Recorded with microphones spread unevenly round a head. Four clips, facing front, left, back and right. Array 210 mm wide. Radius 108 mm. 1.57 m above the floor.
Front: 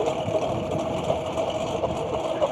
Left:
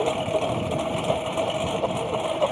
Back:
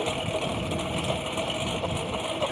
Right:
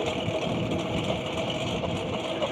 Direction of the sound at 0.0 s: 55° left.